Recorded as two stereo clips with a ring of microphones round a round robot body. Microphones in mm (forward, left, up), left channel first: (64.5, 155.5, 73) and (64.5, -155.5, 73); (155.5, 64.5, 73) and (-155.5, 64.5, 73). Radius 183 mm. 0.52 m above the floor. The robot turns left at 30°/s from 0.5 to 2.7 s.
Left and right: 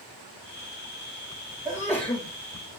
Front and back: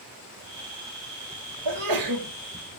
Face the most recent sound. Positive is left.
turn(degrees=155)